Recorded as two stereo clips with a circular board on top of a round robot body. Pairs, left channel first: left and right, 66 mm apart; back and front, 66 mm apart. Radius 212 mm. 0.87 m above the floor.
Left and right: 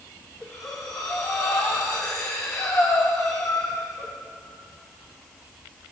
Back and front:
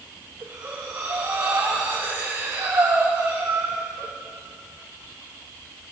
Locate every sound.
0.4 s breathing: 50° left, 1.8 m